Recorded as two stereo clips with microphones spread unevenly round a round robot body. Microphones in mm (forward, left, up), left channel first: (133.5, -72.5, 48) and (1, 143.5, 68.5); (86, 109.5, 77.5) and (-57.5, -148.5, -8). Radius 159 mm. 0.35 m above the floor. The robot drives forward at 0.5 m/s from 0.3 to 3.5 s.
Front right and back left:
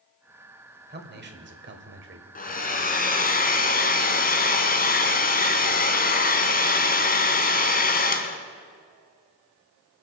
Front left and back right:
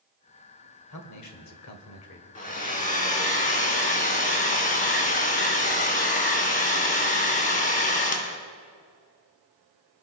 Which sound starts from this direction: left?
A man speaking, at 0.9 s.